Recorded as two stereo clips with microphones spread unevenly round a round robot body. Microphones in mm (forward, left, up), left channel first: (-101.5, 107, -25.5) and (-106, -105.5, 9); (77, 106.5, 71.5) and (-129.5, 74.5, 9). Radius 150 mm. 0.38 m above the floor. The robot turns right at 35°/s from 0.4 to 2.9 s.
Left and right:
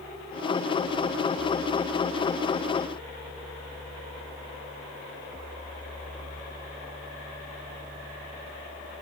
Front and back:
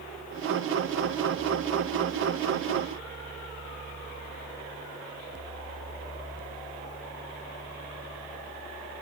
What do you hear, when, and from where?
Only background noise.